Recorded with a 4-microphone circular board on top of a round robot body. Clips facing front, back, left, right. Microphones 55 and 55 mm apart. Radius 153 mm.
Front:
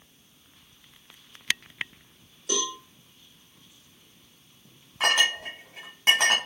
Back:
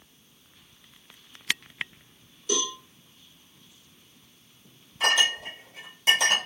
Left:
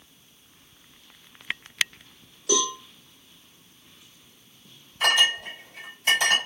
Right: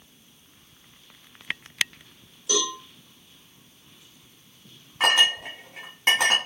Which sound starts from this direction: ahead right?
A clink, at 5.0 s.